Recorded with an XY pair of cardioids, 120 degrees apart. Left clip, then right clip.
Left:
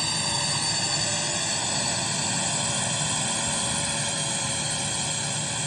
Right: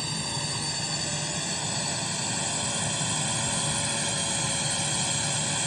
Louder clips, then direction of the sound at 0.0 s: Left 5 dB; 35° left.